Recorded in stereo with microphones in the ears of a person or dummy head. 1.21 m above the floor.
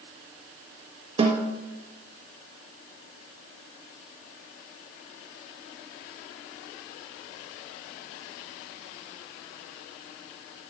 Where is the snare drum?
30° right (ahead or behind), 1.1 m.